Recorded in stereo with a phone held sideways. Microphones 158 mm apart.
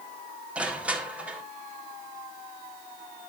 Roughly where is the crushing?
Centre.